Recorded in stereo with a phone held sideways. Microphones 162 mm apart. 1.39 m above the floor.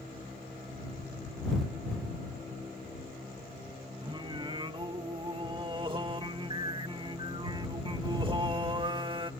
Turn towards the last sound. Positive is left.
turn(degrees=-30)  # may be behind; listen again after turning